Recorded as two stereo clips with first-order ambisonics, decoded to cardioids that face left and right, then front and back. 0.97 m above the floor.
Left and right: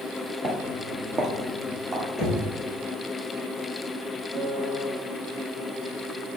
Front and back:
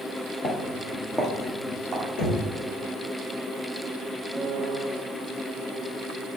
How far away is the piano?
About 1.2 m.